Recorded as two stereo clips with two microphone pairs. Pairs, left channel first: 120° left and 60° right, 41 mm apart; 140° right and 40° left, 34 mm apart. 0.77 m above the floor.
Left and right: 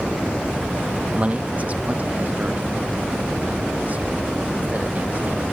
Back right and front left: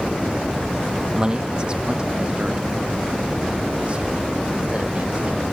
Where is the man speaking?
20° right; by 5.4 s 10° right.